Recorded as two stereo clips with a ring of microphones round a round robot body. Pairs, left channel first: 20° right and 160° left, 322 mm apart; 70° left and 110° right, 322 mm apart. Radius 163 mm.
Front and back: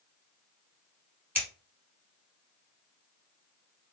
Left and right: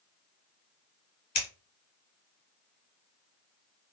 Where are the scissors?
75° left, 2.5 m.